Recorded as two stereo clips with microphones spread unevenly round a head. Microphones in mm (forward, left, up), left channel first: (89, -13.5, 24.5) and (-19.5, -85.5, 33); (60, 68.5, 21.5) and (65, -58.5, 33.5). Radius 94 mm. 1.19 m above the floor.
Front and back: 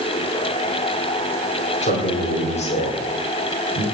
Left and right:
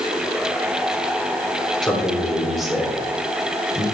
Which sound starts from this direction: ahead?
A man speaking, at 1.8 s.